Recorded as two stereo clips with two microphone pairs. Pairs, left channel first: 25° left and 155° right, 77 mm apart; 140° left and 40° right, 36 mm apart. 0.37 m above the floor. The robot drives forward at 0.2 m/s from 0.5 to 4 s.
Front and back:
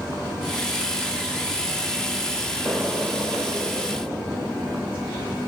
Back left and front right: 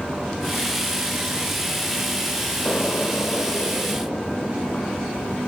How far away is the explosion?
About 0.7 m.